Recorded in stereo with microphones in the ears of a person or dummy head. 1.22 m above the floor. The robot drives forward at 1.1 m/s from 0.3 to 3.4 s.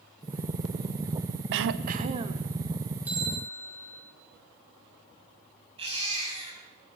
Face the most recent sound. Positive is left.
turn(degrees=-35)  # may be behind; listen again after turning